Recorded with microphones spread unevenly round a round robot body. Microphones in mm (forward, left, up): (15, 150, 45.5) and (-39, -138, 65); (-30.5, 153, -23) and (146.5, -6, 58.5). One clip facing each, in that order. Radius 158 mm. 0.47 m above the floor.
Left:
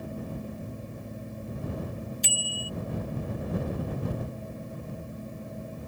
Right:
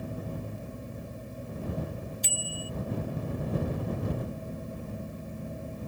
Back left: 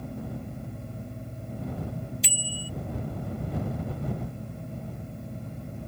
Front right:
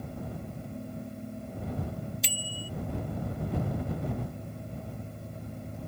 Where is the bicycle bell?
50° left.